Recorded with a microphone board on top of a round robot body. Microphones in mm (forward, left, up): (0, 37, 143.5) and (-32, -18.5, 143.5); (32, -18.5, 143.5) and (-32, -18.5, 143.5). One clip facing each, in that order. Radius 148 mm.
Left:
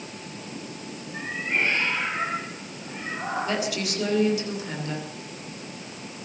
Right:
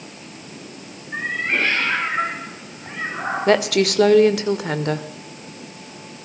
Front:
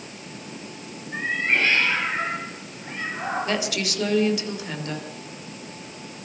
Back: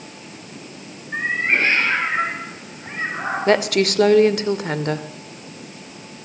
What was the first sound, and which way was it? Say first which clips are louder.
A cat meowing: right 5 dB, back 3 dB; 125° right.